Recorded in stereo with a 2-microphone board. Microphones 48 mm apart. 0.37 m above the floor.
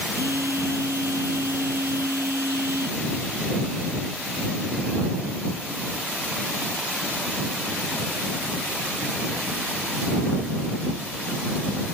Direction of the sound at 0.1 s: 75° right (ahead or behind).